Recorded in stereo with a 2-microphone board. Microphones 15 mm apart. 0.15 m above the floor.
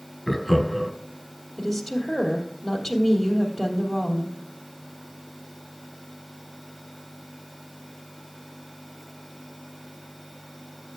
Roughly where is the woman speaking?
Centre.